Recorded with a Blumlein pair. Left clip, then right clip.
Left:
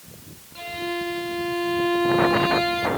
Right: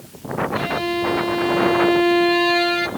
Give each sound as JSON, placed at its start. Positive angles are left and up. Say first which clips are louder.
{"t": 0.6, "sound": "a violin", "louder": "right 3 dB", "azimuth_deg": -20, "distance_m": 1.9}